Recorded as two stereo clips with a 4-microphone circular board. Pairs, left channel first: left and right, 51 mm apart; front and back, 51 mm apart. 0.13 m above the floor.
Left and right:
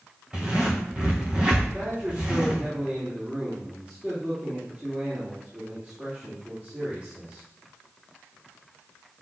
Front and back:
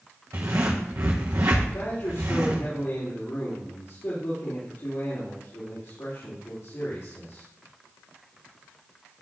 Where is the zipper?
160° right, 3 m.